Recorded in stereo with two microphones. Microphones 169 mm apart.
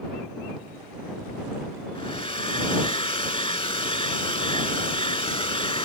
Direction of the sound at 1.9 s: 35° left (ahead or behind).